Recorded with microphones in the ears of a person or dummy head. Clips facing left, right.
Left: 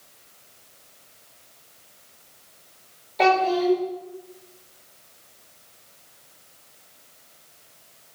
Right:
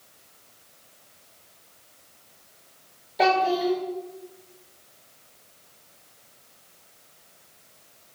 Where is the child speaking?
10° right (ahead or behind), 2 m.